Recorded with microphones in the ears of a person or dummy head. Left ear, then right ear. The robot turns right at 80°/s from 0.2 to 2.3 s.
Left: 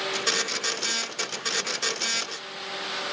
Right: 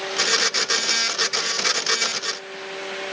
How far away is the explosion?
No explosion in this recording.